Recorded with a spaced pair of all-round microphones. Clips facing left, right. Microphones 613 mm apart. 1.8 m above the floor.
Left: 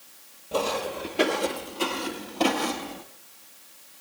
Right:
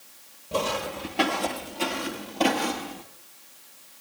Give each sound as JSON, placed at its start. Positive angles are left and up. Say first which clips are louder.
{"t": 0.5, "sound": "footsteps", "louder": "left 1 dB", "side_deg": -30, "distance_m": 2.0}